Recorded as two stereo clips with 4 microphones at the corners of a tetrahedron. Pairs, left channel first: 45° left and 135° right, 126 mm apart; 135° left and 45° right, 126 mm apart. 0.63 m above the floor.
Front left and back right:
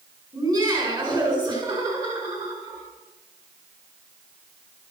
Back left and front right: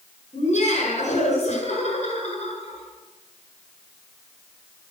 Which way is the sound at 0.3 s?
165° left.